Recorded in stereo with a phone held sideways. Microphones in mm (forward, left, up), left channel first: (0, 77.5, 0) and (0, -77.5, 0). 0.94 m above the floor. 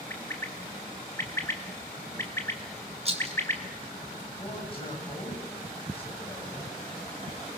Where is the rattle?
40° right (ahead or behind), 2.5 m.